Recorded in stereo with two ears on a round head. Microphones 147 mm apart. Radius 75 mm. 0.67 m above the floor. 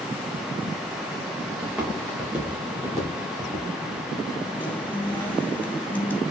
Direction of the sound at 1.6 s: 5° right (ahead or behind).